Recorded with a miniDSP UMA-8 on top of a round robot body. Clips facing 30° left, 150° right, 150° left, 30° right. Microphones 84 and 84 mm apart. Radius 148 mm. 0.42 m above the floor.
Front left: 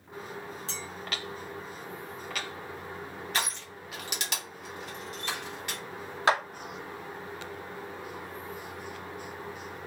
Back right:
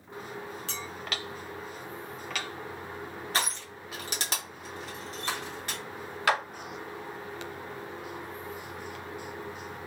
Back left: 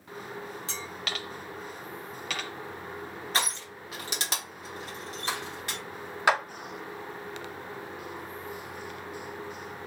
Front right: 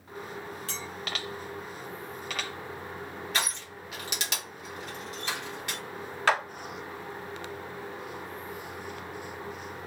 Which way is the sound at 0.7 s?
150° right.